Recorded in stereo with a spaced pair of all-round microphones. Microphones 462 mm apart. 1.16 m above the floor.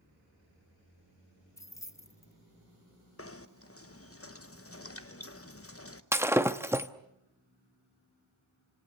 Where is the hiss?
No hiss in this recording.